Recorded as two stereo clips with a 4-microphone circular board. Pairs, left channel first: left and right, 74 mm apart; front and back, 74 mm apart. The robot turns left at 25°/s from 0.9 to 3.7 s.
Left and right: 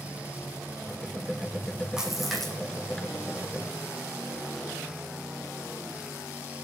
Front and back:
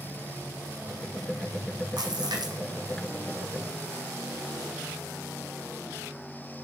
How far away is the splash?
About 6.5 m.